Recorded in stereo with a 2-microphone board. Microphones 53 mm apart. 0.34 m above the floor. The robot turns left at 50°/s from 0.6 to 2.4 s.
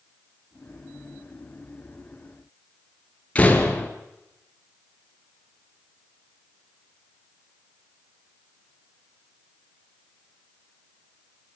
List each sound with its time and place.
3.4 s a door slam: 25° left (ahead or behind), 3.5 m